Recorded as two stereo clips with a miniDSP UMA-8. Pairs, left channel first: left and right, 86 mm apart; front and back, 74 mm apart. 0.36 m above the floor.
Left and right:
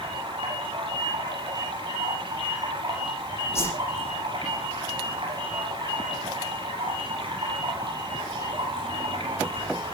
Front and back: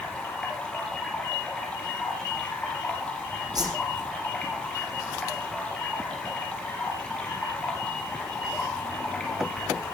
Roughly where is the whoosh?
Behind left.